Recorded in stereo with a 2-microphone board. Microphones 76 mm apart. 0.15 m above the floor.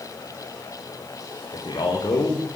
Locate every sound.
1.5 s a man speaking: 70° left (ahead or behind), 9.5 m